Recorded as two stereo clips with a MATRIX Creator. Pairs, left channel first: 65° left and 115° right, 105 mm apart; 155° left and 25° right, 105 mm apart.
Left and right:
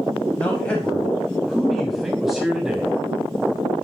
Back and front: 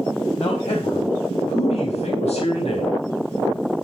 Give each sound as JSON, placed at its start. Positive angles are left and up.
{"t": 0.4, "sound": "a man speaking", "azimuth_deg": 140, "distance_m": 4.0}